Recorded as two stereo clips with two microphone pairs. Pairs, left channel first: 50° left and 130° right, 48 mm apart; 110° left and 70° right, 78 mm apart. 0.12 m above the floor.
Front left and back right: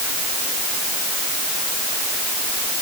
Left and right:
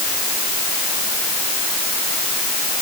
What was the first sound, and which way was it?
Only background noise.